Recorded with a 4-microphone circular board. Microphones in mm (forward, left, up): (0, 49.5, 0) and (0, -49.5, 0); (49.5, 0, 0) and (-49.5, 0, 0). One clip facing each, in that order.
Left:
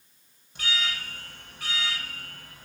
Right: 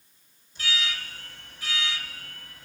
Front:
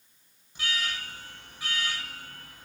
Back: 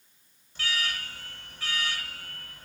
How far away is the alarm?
About 5 m.